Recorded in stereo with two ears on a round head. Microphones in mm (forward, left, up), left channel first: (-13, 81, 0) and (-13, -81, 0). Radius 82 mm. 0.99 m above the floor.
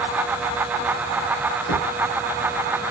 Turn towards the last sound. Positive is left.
turn(degrees=85)